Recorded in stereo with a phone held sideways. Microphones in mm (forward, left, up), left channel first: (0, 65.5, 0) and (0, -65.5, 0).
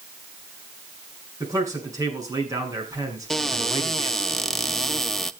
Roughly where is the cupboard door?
Centre.